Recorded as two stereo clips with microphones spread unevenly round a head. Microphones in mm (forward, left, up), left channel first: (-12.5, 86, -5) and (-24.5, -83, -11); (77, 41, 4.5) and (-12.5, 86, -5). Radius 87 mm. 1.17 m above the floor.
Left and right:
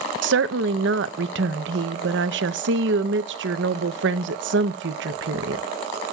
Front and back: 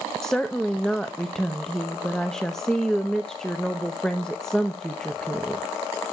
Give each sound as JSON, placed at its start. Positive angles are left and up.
{"t": 0.2, "sound": "a woman speaking", "azimuth_deg": -115, "distance_m": 0.7}